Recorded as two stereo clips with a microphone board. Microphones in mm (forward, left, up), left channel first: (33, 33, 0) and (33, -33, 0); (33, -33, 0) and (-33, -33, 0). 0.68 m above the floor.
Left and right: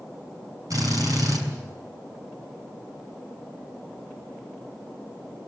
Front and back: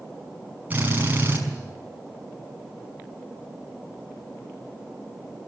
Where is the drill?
115° right, 6 m.